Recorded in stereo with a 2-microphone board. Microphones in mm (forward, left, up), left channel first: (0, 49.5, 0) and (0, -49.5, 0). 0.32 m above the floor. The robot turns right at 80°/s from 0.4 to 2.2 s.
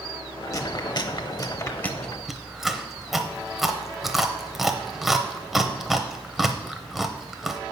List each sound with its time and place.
0.5 s chewing: 35° left (ahead or behind), 0.7 m; by 7.6 s 5° right (ahead or behind), 0.7 m